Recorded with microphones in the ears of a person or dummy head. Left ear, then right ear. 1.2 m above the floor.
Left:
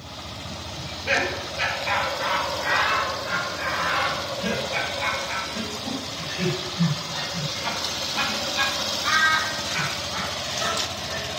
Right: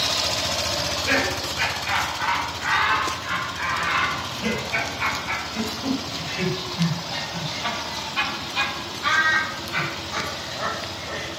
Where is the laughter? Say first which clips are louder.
Left 1 dB; centre (ahead or behind), 4.5 m; by 11.3 s 55° right (ahead or behind), 9.5 m.